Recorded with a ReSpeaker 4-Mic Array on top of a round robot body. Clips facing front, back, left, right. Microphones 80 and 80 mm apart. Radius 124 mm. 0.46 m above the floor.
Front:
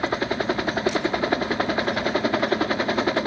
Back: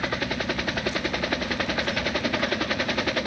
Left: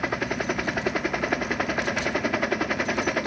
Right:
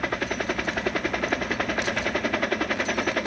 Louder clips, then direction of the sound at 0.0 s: Front 4 dB, even; 10° left.